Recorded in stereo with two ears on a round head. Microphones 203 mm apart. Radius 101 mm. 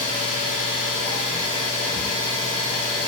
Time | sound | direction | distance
0.0 | an engine running | 50° left (ahead or behind) | 1.9 m